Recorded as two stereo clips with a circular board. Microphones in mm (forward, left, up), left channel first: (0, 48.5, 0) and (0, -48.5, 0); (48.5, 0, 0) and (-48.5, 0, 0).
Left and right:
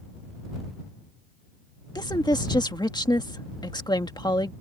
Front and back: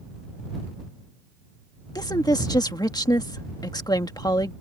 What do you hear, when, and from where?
1.9 s a woman speaking: 45° left